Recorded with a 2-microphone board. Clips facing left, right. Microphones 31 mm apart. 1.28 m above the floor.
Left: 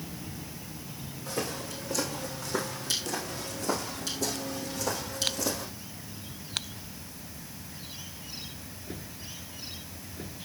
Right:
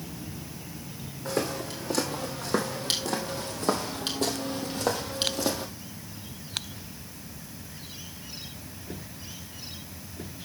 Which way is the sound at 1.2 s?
70° right (ahead or behind).